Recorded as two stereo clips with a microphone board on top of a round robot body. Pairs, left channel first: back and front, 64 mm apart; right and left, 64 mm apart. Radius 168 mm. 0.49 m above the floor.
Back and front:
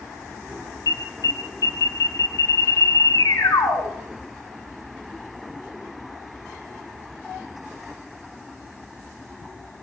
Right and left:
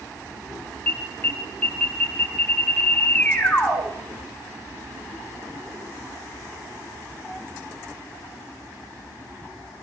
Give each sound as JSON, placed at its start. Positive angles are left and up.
{"t": 0.9, "sound": "an alarm", "azimuth_deg": -155, "distance_m": 6.5}